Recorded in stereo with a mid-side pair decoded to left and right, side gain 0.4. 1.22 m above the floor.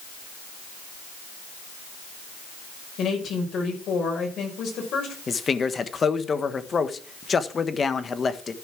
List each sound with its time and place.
3.0 s a woman speaking: 70° left, 5 m
5.3 s a man speaking: 40° left, 1.4 m